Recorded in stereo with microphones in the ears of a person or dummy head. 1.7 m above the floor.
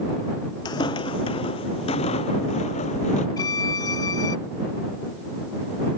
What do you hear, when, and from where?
0.7 s footsteps: 30° left (ahead or behind); by 3.3 s 45° left (ahead or behind)
3.4 s a violin: 30° left (ahead or behind)